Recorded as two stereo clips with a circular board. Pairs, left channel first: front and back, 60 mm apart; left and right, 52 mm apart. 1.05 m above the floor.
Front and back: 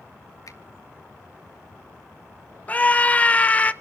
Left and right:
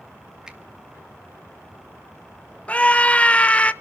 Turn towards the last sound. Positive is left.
turn(degrees=50)